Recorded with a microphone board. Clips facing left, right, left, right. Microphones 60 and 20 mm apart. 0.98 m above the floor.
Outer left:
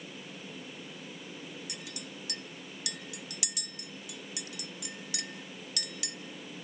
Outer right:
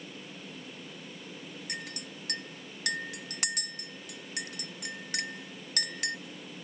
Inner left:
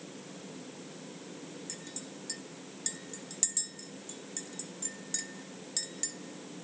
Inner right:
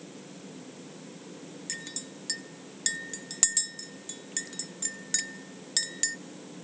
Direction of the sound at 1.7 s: 45° right (ahead or behind).